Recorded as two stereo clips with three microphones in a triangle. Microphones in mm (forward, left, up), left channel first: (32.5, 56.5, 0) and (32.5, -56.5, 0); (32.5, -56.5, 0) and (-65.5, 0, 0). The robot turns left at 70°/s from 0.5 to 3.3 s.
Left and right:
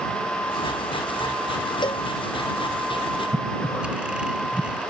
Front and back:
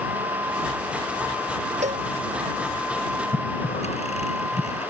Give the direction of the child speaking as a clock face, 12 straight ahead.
No child speaking in this recording.